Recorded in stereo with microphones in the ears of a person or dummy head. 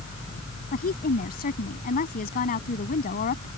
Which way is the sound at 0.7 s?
40° left (ahead or behind).